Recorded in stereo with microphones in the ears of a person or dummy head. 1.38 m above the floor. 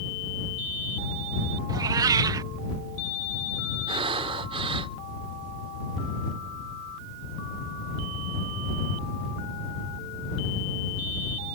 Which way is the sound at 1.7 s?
20° right (ahead or behind).